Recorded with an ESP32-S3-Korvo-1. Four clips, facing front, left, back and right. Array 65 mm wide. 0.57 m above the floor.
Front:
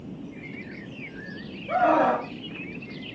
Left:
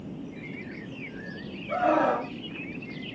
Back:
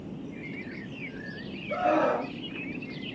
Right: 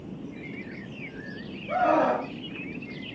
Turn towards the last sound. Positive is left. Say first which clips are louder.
# right 1 dB, front 4 dB
turn(degrees=-20)